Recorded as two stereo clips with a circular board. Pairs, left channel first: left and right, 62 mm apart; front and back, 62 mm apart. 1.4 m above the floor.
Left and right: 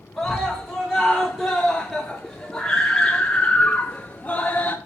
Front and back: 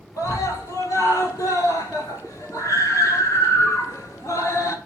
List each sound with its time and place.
0.2 s a scream: straight ahead, 5.5 m; by 4.8 s 30° left, 2 m